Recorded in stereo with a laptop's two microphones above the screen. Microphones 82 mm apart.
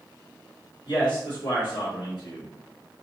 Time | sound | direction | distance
0.9 | a man speaking | 60° left (ahead or behind) | 1.6 m